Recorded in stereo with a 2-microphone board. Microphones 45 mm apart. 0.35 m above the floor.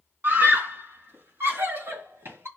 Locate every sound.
0.2 s a scream: 50° right (ahead or behind), 3 m; by 2.5 s 70° right (ahead or behind), 5.5 m